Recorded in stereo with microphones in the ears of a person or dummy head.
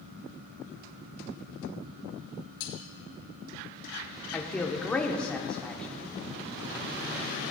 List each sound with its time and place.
2.6 s cutlery clinking: 65° left (ahead or behind), 2.5 m
4.3 s a man speaking: 10° left (ahead or behind), 0.8 m